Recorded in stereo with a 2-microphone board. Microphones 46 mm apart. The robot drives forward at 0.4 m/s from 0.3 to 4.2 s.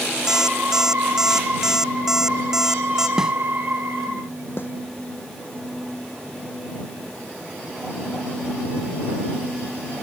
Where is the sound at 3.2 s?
15° right (ahead or behind).